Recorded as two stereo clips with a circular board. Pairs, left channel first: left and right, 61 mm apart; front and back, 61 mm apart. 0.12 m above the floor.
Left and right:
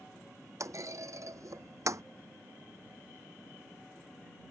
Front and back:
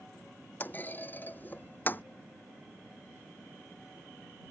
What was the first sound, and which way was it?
A clunk, 60° right.